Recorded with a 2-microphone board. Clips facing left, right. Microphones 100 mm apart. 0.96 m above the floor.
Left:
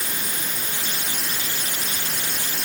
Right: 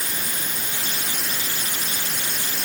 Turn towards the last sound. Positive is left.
No sound to turn to.